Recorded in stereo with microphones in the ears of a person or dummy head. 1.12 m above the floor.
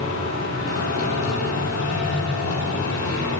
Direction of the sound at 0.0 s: 85° left.